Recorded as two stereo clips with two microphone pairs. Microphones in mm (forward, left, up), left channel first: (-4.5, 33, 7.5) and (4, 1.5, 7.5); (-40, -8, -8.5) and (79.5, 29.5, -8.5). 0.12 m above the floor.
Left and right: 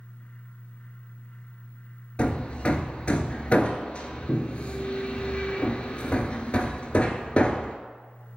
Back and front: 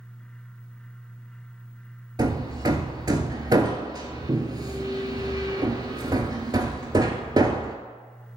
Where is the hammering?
65° left, 0.5 m.